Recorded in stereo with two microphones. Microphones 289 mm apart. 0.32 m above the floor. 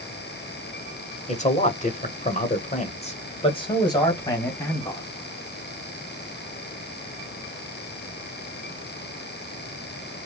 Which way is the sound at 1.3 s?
25° left (ahead or behind).